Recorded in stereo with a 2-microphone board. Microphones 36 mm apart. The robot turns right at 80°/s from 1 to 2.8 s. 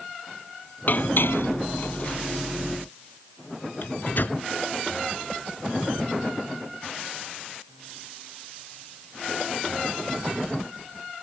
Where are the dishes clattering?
50° left (ahead or behind); by 2.2 s 35° left (ahead or behind).